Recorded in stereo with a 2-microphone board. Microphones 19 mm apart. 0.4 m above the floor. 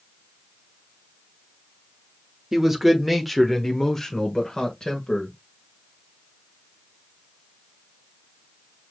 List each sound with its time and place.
2.5 s a man speaking: 20° right (ahead or behind), 1.0 m; by 5.3 s 40° left (ahead or behind), 1.5 m